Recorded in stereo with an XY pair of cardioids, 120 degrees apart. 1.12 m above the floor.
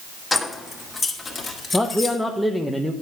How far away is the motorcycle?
No motorcycle in this recording.